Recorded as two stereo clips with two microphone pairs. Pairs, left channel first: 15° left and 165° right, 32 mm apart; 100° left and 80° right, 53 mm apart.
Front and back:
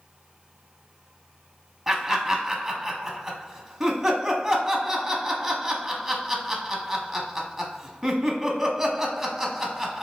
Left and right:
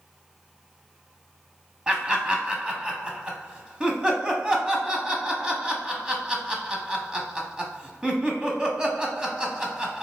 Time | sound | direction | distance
1.9 | laughter | 100° right | 1.0 m